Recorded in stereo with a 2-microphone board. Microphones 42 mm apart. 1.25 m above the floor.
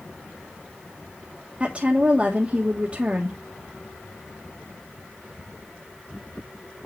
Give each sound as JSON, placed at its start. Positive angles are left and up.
{"t": 1.6, "sound": "a woman speaking", "side_deg": -30, "distance_m": 1.4}